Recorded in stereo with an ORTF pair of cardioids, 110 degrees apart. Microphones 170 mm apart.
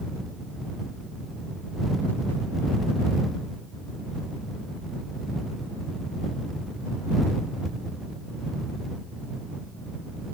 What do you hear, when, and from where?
Only background noise.